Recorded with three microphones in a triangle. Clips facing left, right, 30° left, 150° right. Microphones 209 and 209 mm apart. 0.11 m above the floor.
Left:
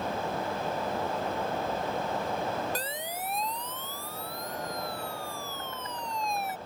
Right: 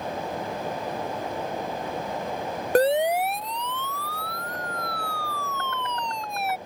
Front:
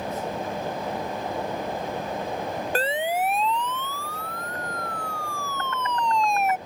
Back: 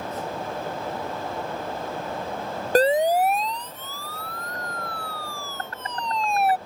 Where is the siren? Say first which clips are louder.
Right 17 dB, back 9 dB; 100° right; by 6.6 s 95° right.